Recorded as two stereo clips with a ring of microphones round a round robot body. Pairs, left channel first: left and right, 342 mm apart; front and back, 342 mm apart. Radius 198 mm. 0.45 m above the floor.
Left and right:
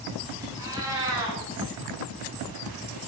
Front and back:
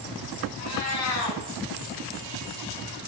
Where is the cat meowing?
10° right, 0.6 m.